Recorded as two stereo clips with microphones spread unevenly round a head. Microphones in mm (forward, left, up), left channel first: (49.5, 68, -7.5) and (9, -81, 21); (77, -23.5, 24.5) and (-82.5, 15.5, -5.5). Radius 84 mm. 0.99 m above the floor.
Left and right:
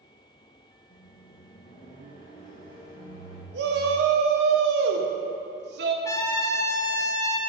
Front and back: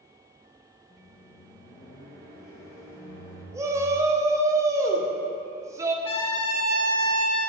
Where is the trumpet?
5° left, 0.8 m.